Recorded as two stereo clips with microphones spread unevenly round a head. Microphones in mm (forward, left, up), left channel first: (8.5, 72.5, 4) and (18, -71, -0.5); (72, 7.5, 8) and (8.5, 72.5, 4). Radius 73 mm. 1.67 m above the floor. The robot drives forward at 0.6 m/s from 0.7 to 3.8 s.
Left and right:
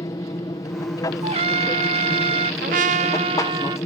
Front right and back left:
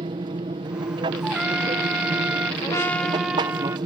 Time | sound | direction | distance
0.0 | an aircraft | 155° left | ?
1.2 | a trumpet | 140° right | ?
2.6 | a trumpet | 100° right | ?